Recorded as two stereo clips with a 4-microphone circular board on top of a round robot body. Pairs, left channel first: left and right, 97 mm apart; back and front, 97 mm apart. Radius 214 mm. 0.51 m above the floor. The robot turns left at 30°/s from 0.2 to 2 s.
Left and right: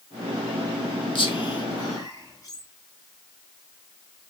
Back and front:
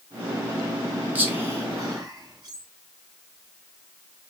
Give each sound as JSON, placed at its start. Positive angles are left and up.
{"t": 1.1, "sound": "whispering", "azimuth_deg": 70, "distance_m": 2.0}